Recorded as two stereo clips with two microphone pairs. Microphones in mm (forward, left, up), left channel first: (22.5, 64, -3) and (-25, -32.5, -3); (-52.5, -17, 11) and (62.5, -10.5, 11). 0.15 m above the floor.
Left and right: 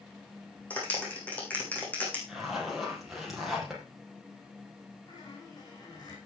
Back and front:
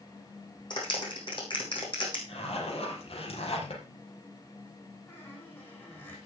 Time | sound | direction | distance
0.7 | a clap | 140° left | 6.5 m
2.3 | a zipper | 160° left | 5 m
5.1 | a squeak | 115° left | 6.5 m